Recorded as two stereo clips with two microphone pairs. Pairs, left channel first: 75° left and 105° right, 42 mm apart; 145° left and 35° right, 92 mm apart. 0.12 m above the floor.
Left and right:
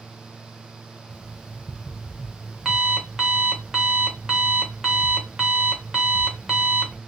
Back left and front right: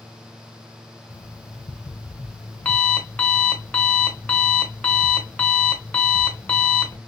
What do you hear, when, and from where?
1.1 s an alarm clock: 165° right, 0.9 m